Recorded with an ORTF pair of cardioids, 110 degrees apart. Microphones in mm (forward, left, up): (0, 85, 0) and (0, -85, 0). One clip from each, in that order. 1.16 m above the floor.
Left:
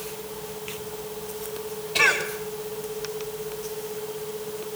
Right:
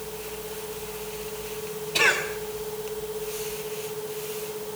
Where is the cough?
15° right, 3 m.